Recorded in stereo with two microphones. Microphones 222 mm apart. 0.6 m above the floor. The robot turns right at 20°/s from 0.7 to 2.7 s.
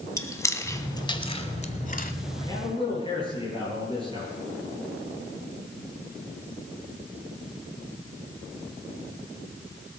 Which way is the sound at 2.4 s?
15° left (ahead or behind).